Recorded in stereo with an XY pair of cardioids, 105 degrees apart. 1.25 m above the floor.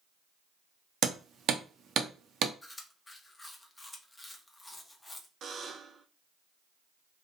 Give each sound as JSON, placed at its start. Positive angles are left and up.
{"t": 1.0, "sound": "hammering", "azimuth_deg": -60, "distance_m": 0.6}
{"t": 2.6, "sound": "chewing", "azimuth_deg": 15, "distance_m": 0.7}
{"t": 5.4, "sound": "a buzzer", "azimuth_deg": -55, "distance_m": 0.5}